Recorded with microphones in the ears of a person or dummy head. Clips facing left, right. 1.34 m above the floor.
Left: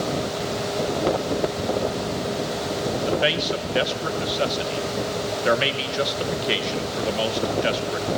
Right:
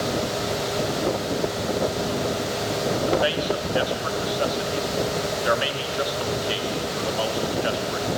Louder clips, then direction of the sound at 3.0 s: Right 1 dB; 30° left (ahead or behind).